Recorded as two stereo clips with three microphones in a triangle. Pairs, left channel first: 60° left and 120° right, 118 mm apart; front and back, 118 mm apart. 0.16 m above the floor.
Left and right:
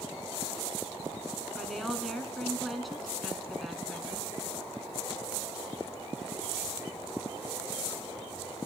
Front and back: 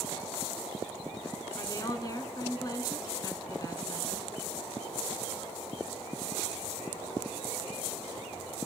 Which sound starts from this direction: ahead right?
A woman speaking, at 1.6 s.